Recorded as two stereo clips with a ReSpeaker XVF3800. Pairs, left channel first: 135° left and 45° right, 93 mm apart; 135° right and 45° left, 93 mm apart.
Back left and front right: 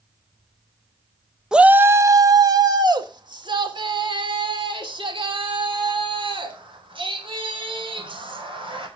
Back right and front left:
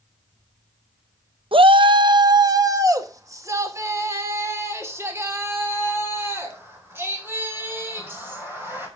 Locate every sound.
1.5 s a shout: 40° left, 0.7 m; by 8.9 s 20° right, 6.5 m